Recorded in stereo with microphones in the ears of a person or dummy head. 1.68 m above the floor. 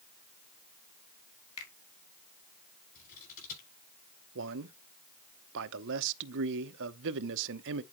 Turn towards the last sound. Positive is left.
turn(degrees=-65)  # may be behind; listen again after turning